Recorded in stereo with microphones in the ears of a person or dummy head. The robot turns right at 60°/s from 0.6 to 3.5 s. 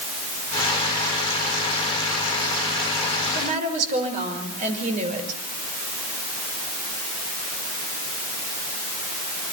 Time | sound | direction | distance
3.3 | a woman speaking | 55° right (ahead or behind) | 5.5 m